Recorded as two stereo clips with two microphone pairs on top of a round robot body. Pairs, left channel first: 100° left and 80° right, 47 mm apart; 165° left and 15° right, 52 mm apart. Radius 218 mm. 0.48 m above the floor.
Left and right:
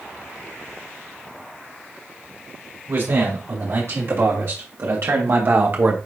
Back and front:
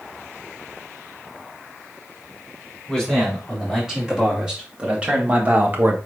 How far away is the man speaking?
About 3 m.